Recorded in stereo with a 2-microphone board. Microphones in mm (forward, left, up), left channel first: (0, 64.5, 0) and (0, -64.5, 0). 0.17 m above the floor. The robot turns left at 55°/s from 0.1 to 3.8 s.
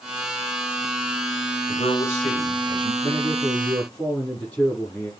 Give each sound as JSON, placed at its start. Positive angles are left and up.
{"t": 1.7, "sound": "a man speaking", "azimuth_deg": 115, "distance_m": 4.5}
{"t": 3.0, "sound": "a man speaking", "azimuth_deg": 55, "distance_m": 6.0}